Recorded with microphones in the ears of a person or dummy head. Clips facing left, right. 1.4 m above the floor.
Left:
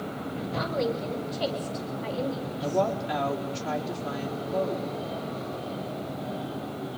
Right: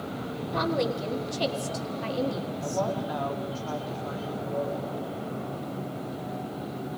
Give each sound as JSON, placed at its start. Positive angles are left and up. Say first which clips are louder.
{"t": 0.5, "sound": "a woman speaking", "louder": "right 2 dB", "side_deg": -65, "distance_m": 3.0}
{"t": 2.6, "sound": "a woman speaking", "louder": "left 4 dB", "side_deg": 30, "distance_m": 4.0}